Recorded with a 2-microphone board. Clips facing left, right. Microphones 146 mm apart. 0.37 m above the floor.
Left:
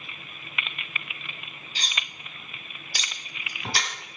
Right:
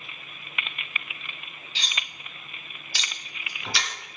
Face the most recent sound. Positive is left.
turn(degrees=40)  # may be behind; listen again after turning